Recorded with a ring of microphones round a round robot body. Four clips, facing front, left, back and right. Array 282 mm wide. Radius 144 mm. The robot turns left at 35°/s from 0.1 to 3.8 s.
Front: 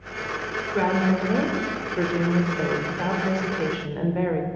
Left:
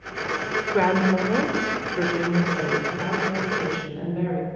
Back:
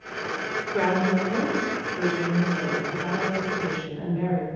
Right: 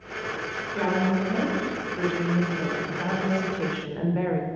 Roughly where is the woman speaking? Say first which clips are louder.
Left 4 dB, front 1 dB; left.